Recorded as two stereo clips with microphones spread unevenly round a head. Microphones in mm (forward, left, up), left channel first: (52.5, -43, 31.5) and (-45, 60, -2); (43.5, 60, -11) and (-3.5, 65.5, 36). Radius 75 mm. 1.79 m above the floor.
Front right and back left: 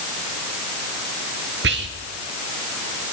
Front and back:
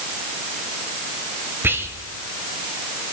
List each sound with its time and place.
1.6 s whispering: 145° left, 1.9 m